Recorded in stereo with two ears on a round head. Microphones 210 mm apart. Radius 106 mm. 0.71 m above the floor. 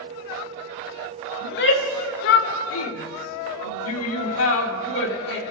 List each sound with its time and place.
1.4 s a shout: 55° left (ahead or behind), 3 m; by 5.4 s 45° left (ahead or behind), 2.0 m